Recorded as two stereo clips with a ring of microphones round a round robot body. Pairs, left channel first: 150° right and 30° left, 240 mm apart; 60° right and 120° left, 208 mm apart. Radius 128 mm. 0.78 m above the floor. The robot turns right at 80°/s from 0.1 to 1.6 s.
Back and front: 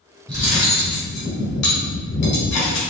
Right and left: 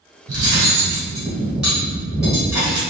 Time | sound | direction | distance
0.3 | cutlery clinking | 100° left | 2.0 m